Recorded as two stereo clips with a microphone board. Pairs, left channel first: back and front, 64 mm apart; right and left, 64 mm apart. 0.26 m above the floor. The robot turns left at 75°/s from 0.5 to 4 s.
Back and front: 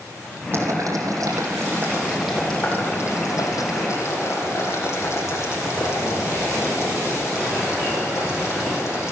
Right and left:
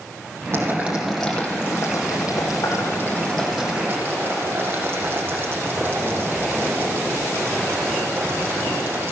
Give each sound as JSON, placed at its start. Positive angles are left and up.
{"t": 0.5, "sound": "boiling", "azimuth_deg": 45, "distance_m": 7.0}